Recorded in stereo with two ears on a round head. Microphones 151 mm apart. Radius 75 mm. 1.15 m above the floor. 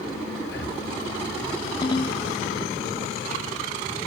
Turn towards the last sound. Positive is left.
turn(degrees=30)  # may be behind; listen again after turning